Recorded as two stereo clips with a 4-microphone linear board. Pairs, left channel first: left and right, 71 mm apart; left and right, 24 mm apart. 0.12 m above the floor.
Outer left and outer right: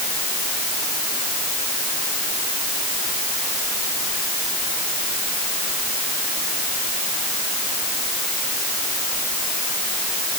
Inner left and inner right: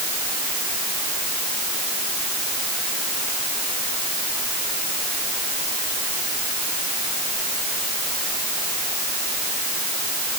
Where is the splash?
I don't hear a splash.